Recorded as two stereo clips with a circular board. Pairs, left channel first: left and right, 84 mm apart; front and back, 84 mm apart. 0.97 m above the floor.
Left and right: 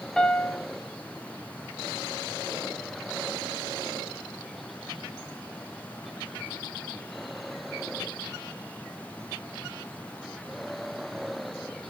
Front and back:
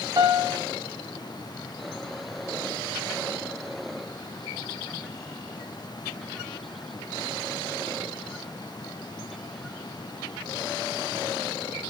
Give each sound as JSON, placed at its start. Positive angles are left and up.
{"t": 0.2, "sound": "a piano", "azimuth_deg": 170, "distance_m": 0.6}